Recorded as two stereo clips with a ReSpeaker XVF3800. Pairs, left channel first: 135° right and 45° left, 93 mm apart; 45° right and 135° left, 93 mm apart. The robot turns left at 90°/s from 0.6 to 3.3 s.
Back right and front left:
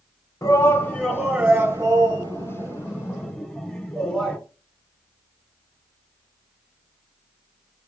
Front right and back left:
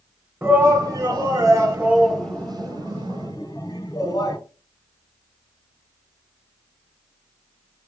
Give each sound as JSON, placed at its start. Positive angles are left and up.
{"t": 0.4, "sound": "a shout", "azimuth_deg": -170, "distance_m": 1.9}